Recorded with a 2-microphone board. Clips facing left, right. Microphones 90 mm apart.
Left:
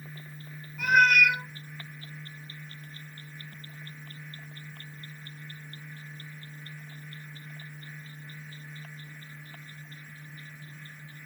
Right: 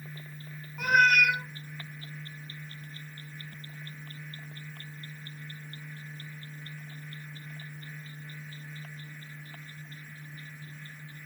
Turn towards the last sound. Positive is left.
turn(degrees=-55)  # may be behind; listen again after turning